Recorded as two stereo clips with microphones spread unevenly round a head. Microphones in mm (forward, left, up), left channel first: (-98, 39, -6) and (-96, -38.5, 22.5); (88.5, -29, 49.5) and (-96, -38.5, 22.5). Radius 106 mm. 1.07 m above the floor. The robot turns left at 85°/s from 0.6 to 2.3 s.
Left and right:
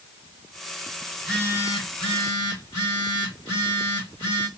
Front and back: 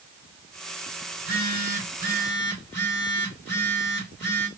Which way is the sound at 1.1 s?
175° right.